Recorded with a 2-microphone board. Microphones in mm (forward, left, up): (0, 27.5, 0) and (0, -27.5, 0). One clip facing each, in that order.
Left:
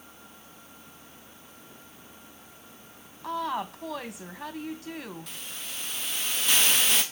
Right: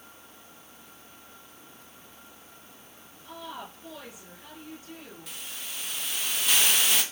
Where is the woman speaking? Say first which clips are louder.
Left 10 dB; 75° left (ahead or behind), 1.9 m.